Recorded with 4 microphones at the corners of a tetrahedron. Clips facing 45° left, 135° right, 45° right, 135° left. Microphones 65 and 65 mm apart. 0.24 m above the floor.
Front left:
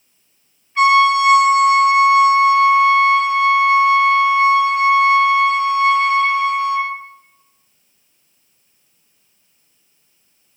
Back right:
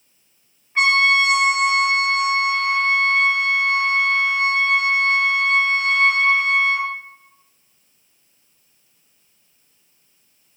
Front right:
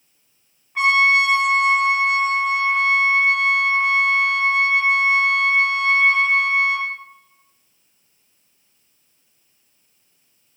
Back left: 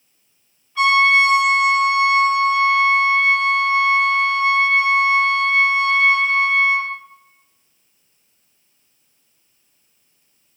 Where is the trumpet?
80° right, 2 m.